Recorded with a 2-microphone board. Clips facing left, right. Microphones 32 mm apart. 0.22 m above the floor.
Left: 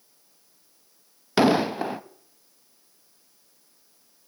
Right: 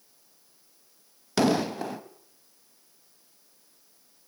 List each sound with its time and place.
1.4 s an explosion: 25° left (ahead or behind), 0.5 m